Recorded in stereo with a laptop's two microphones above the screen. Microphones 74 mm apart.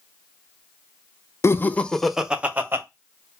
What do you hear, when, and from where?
1.4 s laughter: 35° left (ahead or behind), 0.5 m; by 2.8 s 30° right (ahead or behind), 0.7 m